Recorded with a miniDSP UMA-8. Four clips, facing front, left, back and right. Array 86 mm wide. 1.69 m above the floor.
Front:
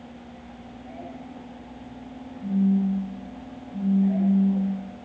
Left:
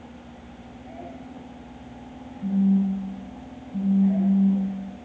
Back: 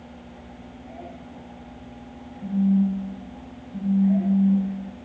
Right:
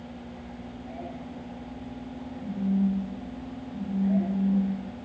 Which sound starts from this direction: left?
A phone buzzing, at 2.4 s.